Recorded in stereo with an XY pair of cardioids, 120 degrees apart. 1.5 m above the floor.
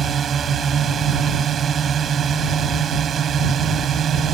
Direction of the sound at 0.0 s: 45° right.